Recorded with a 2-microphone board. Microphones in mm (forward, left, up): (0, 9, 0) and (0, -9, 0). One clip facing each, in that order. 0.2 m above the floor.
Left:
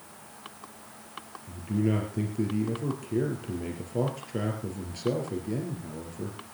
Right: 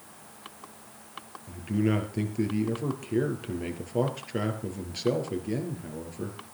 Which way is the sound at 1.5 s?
25° right (ahead or behind).